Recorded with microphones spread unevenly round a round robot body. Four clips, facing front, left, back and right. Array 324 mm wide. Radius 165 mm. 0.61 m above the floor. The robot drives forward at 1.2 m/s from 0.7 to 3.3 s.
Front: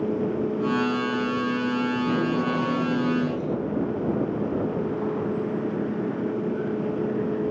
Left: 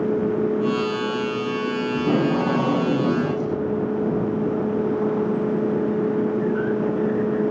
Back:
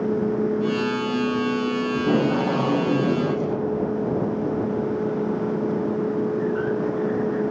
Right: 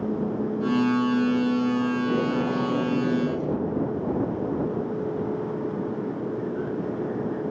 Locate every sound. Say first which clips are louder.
1.9 s tape being pulled: left 4 dB, back 3 dB; 115° left, 5 m; by 3.6 s 130° left, 5.5 m